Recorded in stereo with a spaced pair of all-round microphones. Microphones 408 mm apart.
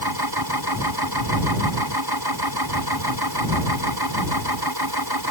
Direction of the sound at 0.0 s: 60° right (ahead or behind).